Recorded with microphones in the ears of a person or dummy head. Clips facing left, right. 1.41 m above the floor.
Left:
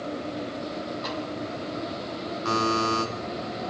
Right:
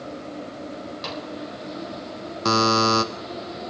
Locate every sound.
1.0 s a snare drum: 40° right (ahead or behind), 4 m
2.5 s a buzzer: 65° right (ahead or behind), 0.9 m